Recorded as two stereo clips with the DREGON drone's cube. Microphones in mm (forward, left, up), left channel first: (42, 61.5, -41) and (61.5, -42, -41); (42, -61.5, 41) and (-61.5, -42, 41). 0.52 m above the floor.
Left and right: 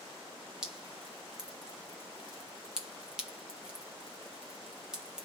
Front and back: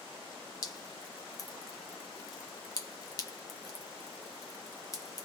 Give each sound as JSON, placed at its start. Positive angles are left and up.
{"t": 0.6, "sound": "dripping", "azimuth_deg": 0, "distance_m": 1.3}